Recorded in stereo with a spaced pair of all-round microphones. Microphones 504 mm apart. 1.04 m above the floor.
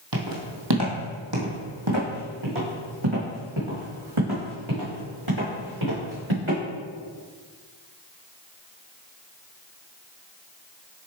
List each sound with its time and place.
0.1 s footsteps: 40° right (ahead or behind), 1.6 m; by 6.6 s 70° right (ahead or behind), 4.5 m